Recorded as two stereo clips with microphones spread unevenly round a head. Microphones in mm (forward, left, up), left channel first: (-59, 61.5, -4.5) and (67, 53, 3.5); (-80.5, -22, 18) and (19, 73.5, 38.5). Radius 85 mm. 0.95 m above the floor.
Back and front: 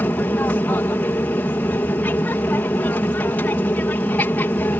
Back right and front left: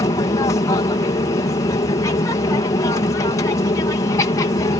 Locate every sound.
0.0 s an aircraft: 120° right